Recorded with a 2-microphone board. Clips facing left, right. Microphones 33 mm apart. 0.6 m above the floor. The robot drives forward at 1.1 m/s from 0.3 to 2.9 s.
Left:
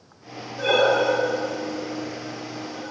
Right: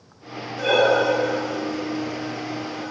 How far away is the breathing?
About 1.7 m.